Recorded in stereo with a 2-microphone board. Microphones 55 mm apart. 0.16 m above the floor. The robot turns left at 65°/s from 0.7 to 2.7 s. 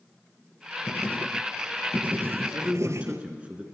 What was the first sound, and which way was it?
Writing, 50° left.